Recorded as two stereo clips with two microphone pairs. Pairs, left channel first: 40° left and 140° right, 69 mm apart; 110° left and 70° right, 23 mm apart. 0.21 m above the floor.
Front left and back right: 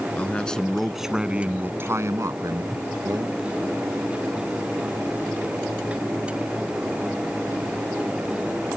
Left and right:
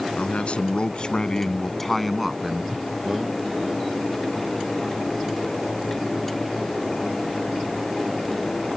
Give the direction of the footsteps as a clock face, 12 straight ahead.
No footsteps in this recording.